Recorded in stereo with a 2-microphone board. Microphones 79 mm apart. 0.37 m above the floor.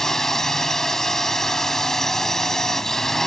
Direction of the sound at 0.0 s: 5° left (ahead or behind).